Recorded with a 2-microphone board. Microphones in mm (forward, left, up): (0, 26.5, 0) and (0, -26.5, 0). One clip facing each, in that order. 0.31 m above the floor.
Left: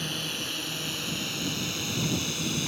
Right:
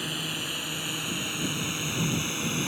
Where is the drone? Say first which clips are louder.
Right 1 dB; 10° right (ahead or behind); by 2.7 s 25° right (ahead or behind).